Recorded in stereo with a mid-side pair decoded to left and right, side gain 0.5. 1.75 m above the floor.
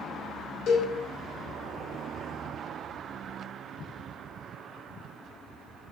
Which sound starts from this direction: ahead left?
A cowbell, at 0.7 s.